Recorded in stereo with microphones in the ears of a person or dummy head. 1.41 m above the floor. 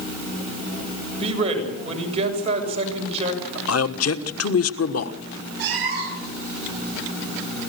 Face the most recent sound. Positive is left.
turn(degrees=-55)  # may be behind; listen again after turning